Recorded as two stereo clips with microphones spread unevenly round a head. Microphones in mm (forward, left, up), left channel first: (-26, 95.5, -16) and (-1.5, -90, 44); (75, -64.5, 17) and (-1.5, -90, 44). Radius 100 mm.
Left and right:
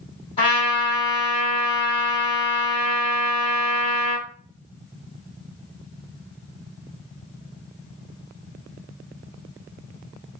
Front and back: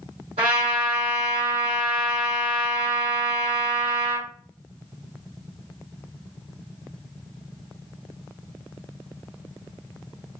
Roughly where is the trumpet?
Behind.